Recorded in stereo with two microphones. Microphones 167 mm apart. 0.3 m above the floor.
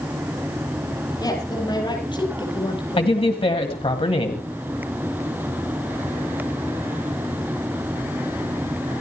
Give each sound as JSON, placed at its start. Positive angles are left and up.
{"t": 1.2, "sound": "a woman speaking", "side_deg": 25, "distance_m": 9.0}
{"t": 3.0, "sound": "a man speaking", "side_deg": 35, "distance_m": 1.8}